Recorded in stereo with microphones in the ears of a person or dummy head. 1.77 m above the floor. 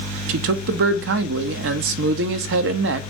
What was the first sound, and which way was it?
A man speaking, 60° right (ahead or behind).